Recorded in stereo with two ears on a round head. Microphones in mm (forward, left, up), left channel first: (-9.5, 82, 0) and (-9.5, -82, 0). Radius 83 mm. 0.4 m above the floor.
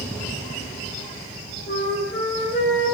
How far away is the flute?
About 1.3 m.